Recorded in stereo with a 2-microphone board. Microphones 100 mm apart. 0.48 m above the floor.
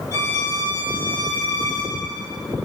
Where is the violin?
30° right (ahead or behind), 1.8 m.